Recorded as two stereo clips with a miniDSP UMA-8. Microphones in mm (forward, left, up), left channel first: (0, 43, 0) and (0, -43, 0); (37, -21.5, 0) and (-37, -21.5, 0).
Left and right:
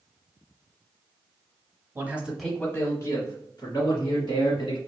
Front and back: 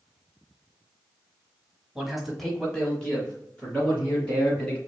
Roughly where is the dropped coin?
I don't hear a dropped coin.